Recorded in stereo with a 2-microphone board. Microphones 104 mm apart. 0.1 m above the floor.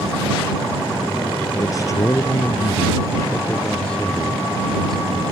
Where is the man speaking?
35° left (ahead or behind); by 5.2 s 5° left (ahead or behind).